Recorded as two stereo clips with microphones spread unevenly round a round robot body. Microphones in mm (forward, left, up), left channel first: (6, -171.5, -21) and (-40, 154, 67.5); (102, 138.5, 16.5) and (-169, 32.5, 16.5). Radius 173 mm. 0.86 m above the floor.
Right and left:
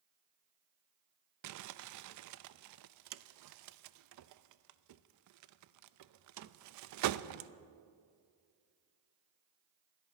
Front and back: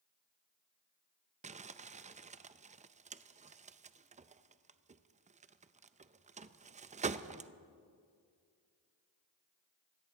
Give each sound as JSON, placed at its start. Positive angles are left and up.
{"t": 1.4, "sound": "crumpling", "azimuth_deg": 140, "distance_m": 0.6}